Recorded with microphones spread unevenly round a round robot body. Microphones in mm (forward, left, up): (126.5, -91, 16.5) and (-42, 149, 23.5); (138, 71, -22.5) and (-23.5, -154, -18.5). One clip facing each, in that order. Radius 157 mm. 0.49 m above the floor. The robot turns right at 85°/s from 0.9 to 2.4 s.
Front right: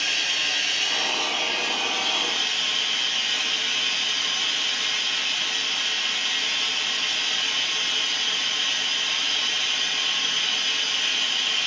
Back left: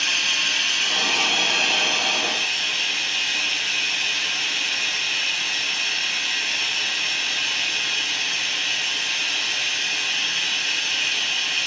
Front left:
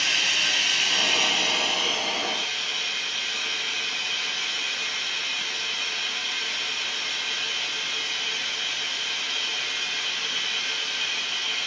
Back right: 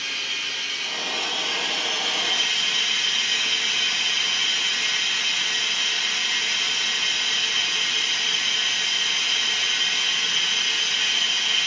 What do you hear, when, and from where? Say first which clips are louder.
0.0 s running water: back left 1 dB, front left 4 dB; 50° left, 2 m; by 11.7 s straight behind, 2 m